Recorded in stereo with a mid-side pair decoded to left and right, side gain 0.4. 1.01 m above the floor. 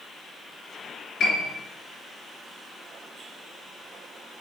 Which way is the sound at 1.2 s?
65° left.